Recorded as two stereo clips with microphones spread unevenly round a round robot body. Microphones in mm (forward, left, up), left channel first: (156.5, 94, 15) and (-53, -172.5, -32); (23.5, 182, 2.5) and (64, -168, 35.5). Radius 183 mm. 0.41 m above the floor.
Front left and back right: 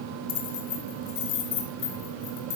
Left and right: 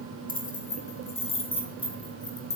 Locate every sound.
0.3 s keys jangling: 30° left, 3.5 m; by 2.6 s 15° left, 4.5 m